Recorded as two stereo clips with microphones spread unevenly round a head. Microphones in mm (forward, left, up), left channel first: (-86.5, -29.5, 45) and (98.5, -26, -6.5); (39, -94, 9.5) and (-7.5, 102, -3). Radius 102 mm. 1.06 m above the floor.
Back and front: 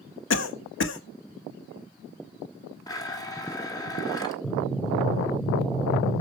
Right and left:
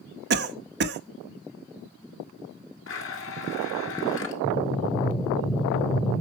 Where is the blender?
110° right, 1.8 m.